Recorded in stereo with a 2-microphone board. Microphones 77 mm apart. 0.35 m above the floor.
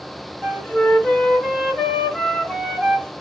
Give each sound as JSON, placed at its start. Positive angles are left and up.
{"t": 0.4, "sound": "a flute", "side_deg": 5, "distance_m": 1.4}